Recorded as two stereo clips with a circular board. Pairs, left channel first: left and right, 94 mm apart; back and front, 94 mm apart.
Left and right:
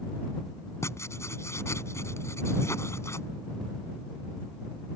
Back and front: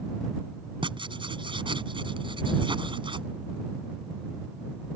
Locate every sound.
0.8 s writing: 30° left